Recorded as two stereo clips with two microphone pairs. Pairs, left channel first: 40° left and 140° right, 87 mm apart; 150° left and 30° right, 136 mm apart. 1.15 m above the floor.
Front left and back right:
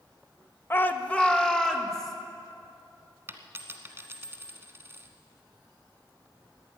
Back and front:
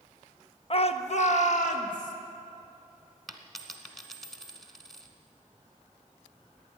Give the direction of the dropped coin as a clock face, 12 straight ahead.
4 o'clock.